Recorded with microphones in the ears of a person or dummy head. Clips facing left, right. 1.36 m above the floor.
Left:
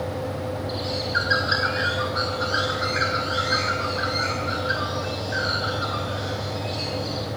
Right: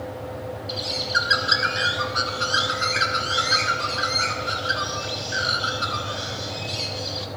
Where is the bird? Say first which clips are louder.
Left 3 dB; 50° right (ahead or behind), 5 m.